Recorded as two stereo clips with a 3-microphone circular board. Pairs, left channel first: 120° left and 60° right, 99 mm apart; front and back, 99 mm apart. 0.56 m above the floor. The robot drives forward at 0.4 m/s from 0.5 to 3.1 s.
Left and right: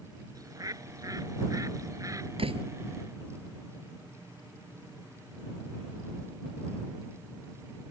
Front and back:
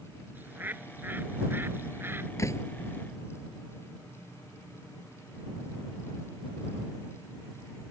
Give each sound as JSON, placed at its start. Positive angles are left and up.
{"t": 0.3, "sound": "a bird", "azimuth_deg": -110}
{"t": 2.4, "sound": "a door slam", "azimuth_deg": -55}